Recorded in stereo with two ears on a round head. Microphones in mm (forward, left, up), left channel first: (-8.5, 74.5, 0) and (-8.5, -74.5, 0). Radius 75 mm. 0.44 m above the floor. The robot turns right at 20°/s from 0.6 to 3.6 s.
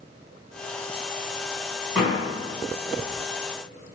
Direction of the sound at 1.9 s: Centre (ahead or behind).